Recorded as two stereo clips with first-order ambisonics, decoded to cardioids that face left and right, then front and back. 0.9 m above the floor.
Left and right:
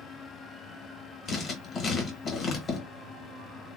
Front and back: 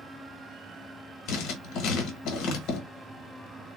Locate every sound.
1.3 s writing: 30° left, 1.0 m